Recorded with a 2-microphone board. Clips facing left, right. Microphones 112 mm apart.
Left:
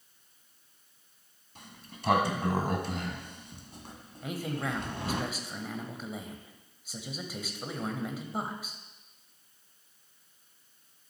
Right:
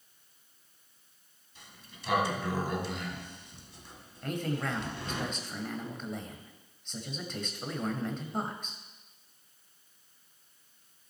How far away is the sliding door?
About 1.3 m.